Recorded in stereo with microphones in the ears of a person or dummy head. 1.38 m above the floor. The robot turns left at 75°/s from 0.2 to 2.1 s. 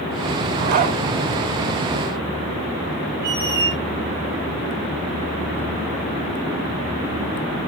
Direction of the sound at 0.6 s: 55° right (ahead or behind).